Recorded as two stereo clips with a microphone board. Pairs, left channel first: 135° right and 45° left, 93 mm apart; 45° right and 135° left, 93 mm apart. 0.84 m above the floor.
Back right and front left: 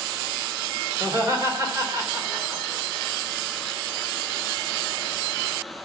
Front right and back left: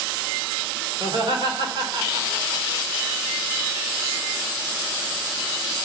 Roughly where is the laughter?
Left.